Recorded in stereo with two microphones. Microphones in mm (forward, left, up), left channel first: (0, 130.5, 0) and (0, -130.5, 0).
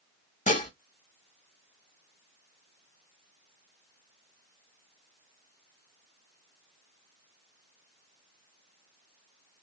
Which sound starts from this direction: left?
Dishes clattering, at 0.5 s.